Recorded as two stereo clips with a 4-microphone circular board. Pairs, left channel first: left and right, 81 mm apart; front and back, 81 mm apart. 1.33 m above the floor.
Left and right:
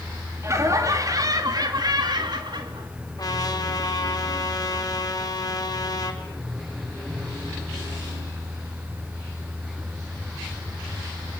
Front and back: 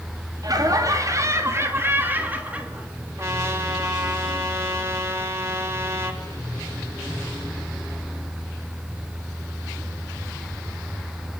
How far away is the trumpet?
About 4.5 m.